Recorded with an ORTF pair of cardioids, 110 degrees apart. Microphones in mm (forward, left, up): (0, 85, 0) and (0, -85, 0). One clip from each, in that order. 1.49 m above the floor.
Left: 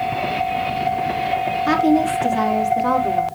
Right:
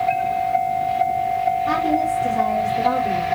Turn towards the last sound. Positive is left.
turn(degrees=60)